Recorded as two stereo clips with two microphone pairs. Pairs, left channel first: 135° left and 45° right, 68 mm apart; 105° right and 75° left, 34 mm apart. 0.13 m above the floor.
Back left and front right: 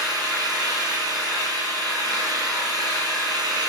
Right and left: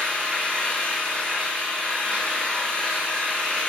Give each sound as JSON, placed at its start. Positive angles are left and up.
{"t": 0.0, "sound": "an engine running", "azimuth_deg": -55, "distance_m": 3.0}